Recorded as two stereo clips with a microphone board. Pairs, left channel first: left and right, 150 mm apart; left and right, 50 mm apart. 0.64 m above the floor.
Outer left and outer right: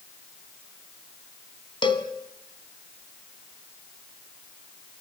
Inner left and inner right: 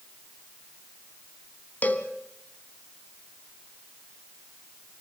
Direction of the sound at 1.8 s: 35° left (ahead or behind).